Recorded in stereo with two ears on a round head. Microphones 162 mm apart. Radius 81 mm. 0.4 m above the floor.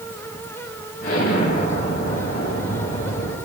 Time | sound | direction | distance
1.0 | an explosion | 55° left (ahead or behind) | 2.5 m